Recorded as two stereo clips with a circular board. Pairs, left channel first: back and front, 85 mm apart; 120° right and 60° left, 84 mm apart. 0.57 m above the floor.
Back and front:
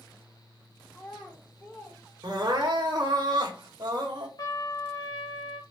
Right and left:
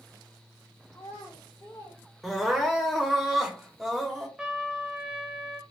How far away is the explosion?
No explosion in this recording.